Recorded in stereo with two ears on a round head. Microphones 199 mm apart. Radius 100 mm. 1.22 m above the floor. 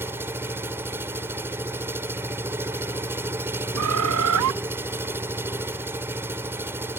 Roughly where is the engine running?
Centre.